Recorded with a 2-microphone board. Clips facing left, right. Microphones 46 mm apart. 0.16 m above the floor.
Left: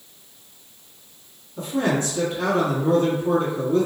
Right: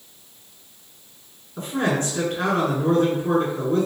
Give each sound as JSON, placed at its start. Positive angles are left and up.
{"t": 1.6, "sound": "a man speaking", "side_deg": -40, "distance_m": 1.5}